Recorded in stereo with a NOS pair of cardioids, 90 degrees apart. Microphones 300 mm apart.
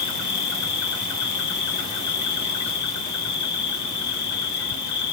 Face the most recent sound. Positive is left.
turn(degrees=70)